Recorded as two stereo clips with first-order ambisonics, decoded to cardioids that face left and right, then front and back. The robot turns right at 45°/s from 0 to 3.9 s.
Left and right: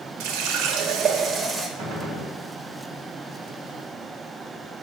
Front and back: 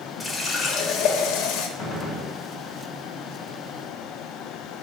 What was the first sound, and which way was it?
A running tap, 80° right.